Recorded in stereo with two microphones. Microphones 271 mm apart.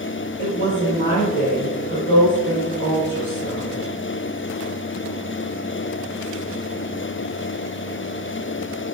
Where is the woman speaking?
40° left (ahead or behind), 1.9 m.